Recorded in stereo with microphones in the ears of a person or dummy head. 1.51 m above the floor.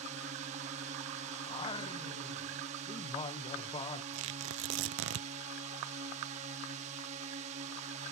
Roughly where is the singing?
Left.